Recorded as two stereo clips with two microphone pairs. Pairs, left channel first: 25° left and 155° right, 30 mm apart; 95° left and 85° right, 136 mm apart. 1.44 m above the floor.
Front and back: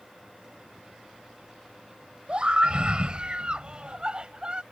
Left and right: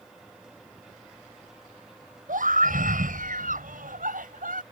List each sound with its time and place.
2.3 s a scream: 100° right; by 4.6 s 95° right